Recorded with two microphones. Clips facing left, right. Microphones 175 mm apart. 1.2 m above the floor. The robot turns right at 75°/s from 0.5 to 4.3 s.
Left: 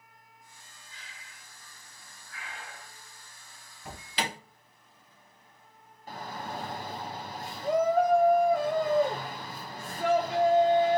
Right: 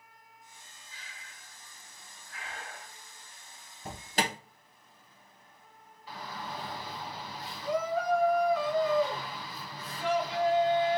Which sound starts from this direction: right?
An alarm, at 3.9 s.